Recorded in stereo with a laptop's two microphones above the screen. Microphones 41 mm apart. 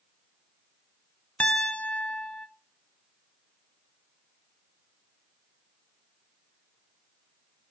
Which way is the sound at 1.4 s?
30° left (ahead or behind).